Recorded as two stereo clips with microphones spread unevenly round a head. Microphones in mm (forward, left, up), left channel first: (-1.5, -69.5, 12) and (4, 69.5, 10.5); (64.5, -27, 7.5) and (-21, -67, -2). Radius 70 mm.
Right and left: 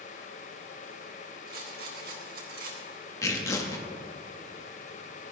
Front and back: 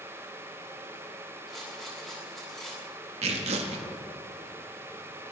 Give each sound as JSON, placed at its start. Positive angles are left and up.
{"t": 1.5, "sound": "a rattle", "azimuth_deg": 115, "distance_m": 4.0}
{"t": 3.2, "sound": "tearing paper", "azimuth_deg": -160, "distance_m": 1.7}